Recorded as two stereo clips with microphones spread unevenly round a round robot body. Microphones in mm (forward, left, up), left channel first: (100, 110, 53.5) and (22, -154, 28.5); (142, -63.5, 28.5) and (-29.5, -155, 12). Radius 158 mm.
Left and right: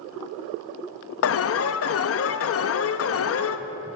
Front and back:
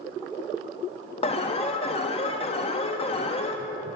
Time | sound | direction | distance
1.2 | an alarm | 85° left | 0.6 m